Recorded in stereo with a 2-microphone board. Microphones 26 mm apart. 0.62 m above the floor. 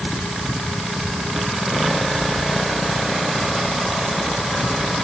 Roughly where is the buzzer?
I don't hear a buzzer.